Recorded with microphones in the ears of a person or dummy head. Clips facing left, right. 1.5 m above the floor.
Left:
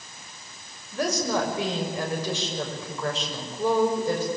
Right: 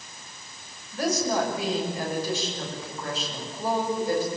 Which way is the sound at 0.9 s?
65° left (ahead or behind).